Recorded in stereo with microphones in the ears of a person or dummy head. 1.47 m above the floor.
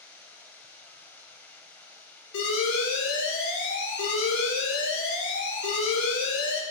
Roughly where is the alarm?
Left.